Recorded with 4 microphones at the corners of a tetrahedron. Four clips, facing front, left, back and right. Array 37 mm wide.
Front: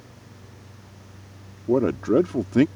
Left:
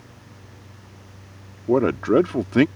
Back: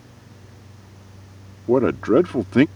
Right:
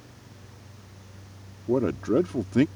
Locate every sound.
1.7 s a man speaking: 130° left